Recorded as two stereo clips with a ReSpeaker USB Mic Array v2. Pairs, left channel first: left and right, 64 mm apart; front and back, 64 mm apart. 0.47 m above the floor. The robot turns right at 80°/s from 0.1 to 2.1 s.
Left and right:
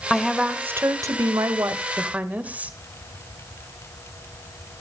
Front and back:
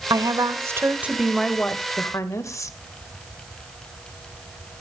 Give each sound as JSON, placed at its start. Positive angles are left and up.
{"t": 0.1, "sound": "a woman speaking", "azimuth_deg": 170, "distance_m": 1.5}